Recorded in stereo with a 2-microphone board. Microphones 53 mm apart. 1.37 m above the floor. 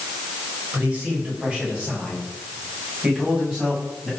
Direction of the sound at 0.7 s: 25° right (ahead or behind).